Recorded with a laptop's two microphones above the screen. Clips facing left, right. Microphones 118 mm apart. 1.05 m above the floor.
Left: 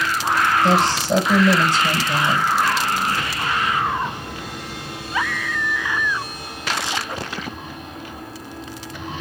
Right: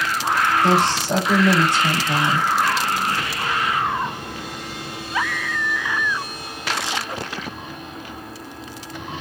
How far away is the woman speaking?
About 2 m.